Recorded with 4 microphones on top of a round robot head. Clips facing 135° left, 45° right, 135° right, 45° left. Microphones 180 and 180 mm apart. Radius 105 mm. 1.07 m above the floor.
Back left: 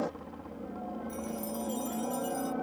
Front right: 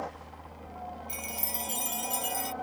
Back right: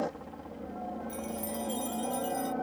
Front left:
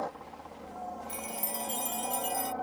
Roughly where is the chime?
Ahead.